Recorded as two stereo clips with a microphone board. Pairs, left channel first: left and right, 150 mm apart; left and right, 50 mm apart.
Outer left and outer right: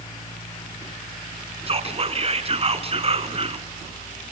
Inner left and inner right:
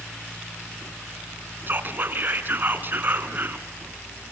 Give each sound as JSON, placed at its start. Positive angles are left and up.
{"t": 1.7, "sound": "whispering", "side_deg": -40, "distance_m": 1.9}